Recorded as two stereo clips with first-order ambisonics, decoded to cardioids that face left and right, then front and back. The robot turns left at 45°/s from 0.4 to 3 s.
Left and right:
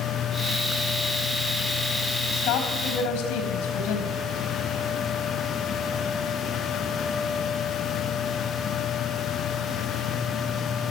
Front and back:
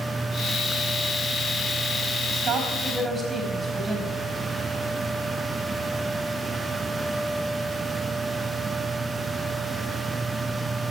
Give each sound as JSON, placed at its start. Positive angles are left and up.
{"t": 2.3, "sound": "a woman speaking", "azimuth_deg": 135, "distance_m": 4.0}